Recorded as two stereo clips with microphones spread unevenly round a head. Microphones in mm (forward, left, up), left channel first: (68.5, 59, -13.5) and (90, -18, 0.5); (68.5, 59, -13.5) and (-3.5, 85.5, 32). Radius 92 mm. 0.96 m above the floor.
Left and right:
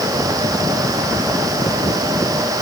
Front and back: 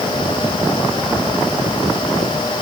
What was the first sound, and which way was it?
Only background noise.